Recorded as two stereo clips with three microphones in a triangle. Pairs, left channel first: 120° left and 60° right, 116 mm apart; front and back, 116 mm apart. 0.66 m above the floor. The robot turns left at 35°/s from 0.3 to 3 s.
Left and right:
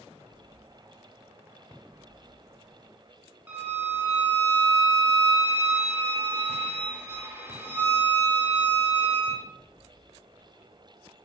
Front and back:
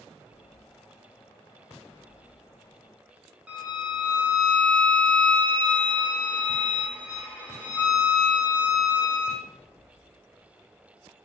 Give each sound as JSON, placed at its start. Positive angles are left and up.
{"t": 3.5, "sound": "a violin", "azimuth_deg": -115, "distance_m": 0.7}